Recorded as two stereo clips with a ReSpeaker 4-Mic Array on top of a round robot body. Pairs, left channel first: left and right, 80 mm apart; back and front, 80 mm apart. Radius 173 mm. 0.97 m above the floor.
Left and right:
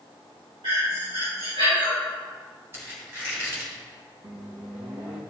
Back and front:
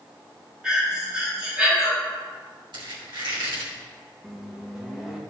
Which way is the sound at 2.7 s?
30° right.